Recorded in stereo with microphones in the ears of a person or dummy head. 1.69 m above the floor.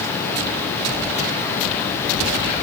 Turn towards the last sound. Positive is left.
No sound to turn to.